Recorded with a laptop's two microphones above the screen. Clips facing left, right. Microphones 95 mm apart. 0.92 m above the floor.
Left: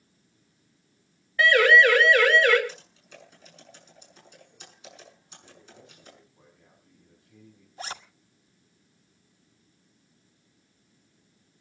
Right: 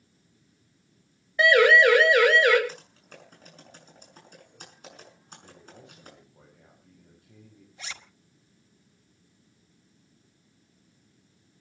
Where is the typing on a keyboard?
50° right (ahead or behind), 6.5 m.